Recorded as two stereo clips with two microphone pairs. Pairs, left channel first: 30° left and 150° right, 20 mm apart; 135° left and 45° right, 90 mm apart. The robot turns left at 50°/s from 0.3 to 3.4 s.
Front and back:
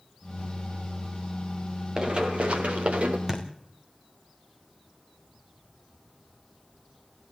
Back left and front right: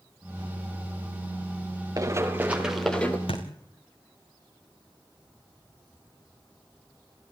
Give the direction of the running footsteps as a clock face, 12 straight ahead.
3 o'clock.